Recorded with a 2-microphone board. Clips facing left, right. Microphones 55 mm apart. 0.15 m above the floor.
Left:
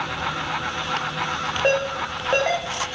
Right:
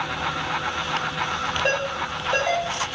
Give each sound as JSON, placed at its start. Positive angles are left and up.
{"t": 1.6, "sound": "a ringtone", "side_deg": 50, "distance_m": 8.0}